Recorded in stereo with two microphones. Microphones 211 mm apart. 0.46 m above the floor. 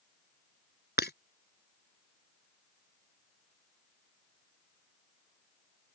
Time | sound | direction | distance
1.0 | breaking glass | 55° left (ahead or behind) | ?